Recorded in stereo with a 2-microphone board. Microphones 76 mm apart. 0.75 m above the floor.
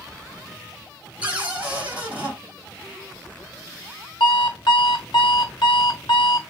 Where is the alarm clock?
75° left (ahead or behind), 0.9 m.